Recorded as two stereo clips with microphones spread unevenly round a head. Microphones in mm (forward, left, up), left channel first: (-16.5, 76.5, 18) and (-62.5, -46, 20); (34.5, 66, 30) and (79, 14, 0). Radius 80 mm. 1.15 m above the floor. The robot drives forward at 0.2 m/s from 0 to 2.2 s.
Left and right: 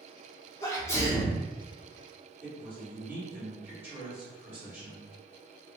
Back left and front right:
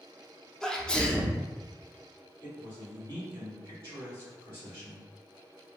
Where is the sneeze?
15° left, 0.7 m; by 1.4 s 25° left, 0.6 m.